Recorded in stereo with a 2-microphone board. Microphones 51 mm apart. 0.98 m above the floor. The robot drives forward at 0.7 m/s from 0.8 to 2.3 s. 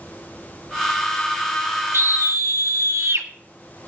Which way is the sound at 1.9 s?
50° right (ahead or behind).